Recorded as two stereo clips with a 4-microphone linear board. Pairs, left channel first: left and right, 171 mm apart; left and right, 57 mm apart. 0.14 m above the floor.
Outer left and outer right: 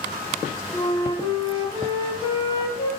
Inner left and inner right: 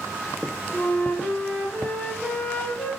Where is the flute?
30° left (ahead or behind), 1.8 m.